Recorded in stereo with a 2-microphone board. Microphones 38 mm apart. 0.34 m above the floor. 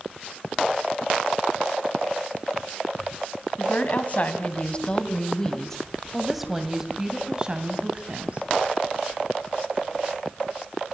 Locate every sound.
3.6 s a woman speaking: 50° left (ahead or behind), 3 m; by 8.5 s 35° right (ahead or behind), 3 m